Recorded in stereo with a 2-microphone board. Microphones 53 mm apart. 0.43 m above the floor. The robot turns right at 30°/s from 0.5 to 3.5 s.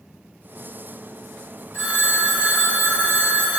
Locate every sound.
1.7 s a phone ringing: 120° right, 1.0 m; by 3.6 s 70° right, 1.0 m